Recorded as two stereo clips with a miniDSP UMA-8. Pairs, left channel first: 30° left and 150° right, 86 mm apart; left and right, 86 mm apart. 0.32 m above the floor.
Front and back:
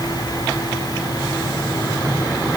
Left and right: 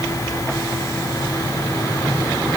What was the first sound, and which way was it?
Only background noise.